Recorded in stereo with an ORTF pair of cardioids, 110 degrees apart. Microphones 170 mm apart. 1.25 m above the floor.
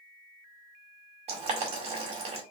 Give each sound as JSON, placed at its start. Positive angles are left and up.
{"t": 1.3, "sound": "boiling", "azimuth_deg": -40, "distance_m": 2.0}